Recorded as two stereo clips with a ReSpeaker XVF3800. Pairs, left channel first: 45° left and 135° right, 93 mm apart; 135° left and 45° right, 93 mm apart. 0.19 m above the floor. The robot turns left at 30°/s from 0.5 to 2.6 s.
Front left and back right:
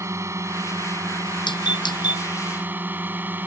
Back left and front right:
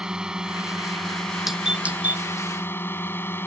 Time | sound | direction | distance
0.0 | a drone | 120° right | ?
1.5 | a doorbell | 40° left | ?